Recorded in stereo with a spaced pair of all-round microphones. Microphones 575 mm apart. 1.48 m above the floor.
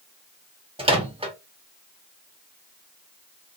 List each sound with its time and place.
0.8 s a microwave: 10° right (ahead or behind), 0.7 m